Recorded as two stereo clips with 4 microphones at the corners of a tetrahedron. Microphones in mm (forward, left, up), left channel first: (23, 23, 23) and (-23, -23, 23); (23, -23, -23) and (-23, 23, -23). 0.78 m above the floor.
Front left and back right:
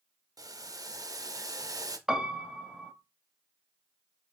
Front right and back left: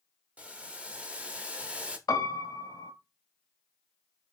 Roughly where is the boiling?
Behind right.